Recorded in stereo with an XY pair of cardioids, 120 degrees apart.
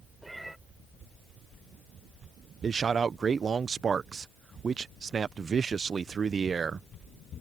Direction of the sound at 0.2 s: 5° right.